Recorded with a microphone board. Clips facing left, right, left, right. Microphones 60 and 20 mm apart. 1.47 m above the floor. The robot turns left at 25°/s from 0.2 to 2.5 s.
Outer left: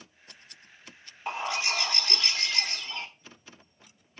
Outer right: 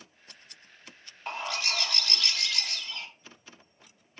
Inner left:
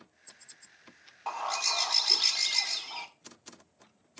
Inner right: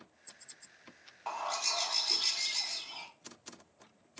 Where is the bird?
165° left, 0.7 m; by 3.1 s 135° left, 0.7 m.